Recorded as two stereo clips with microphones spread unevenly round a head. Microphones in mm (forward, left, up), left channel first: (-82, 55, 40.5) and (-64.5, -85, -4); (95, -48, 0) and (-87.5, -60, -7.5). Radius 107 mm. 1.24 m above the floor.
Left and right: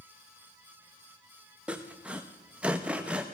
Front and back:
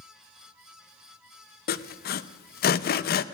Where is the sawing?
15° left, 0.6 m.